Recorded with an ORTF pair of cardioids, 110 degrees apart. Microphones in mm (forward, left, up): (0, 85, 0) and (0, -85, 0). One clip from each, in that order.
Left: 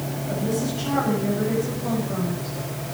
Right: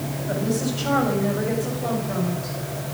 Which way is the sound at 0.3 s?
40° right.